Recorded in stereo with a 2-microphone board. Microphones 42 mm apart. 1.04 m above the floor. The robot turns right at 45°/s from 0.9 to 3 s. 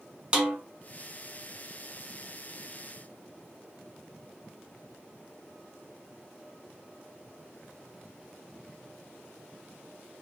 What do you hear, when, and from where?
0.3 s a snare drum: 25° right (ahead or behind), 0.8 m